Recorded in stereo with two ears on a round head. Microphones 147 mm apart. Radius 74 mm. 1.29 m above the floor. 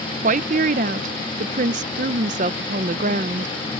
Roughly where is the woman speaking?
Right.